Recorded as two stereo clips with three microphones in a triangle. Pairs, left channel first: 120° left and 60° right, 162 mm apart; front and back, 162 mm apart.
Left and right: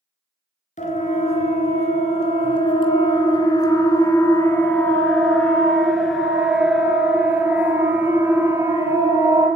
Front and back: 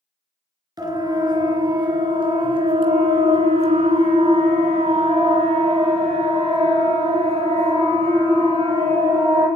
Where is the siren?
125° left, 3 m; by 9.5 s 130° right, 4.5 m.